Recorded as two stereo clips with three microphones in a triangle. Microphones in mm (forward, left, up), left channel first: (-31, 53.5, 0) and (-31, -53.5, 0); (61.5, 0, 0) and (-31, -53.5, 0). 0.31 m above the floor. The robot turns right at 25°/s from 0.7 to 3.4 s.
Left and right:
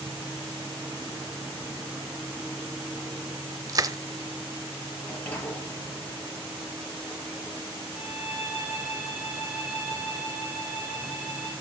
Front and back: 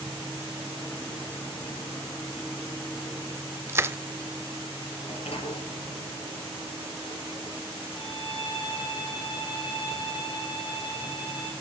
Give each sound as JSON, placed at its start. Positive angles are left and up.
{"t": 3.7, "sound": "crushing", "azimuth_deg": -105, "distance_m": 0.5}
{"t": 5.0, "sound": "a sliding door", "azimuth_deg": 15, "distance_m": 5.0}
{"t": 7.9, "sound": "a violin", "azimuth_deg": 0, "distance_m": 10.0}